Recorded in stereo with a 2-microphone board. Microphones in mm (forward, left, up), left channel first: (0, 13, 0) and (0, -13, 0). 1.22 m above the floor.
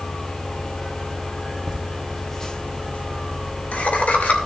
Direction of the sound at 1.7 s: 40° right (ahead or behind).